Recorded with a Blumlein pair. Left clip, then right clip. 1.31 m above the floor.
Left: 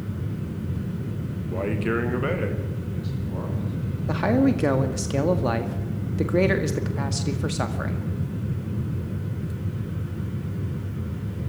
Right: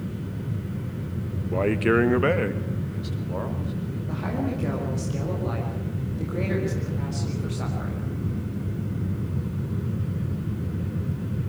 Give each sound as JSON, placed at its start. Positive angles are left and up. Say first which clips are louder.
{"t": 1.5, "sound": "a man speaking", "louder": "right 5 dB", "azimuth_deg": -15, "distance_m": 1.6}
{"t": 4.1, "sound": "a man speaking", "louder": "left 9 dB", "azimuth_deg": 30, "distance_m": 1.9}